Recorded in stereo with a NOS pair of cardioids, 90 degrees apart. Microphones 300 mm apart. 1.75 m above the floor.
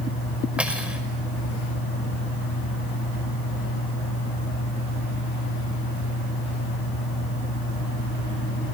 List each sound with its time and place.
0.6 s cutlery clinking: 5° right, 5.5 m